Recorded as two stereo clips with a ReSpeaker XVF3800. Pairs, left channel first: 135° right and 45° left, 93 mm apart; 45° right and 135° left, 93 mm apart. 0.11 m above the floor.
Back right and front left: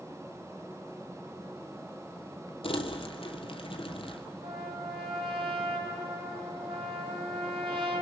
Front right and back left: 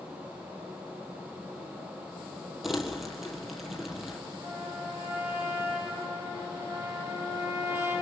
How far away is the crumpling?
About 1.6 m.